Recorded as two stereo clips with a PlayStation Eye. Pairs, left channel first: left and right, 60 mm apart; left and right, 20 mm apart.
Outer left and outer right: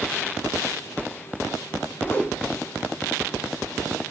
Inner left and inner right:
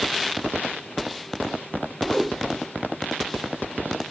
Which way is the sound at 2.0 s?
35° left (ahead or behind).